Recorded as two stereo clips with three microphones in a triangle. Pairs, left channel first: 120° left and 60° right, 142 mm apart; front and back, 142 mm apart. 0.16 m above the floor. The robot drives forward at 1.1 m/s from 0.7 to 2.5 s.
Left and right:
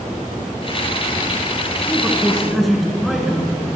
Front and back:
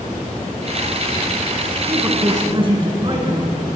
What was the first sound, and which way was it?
A man speaking, 125° right.